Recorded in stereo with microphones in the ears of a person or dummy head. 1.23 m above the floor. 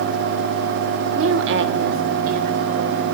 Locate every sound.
1.1 s a woman speaking: 65° right (ahead or behind), 1.1 m; by 3.0 s 40° right (ahead or behind), 2 m